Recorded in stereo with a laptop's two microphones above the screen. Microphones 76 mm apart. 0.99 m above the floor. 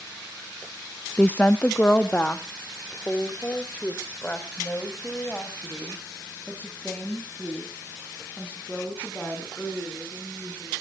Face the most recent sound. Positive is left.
turn(degrees=20)  # may be behind; listen again after turning